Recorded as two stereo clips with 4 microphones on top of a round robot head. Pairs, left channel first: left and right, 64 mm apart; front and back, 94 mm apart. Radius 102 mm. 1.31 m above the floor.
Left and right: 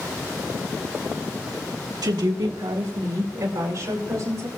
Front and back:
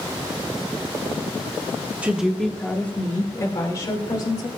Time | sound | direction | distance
2.0 | a woman speaking | 105° right | 1.5 m